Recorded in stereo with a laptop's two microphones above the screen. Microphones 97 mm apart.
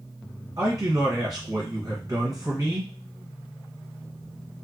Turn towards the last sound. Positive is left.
turn(degrees=-40)  # may be behind; listen again after turning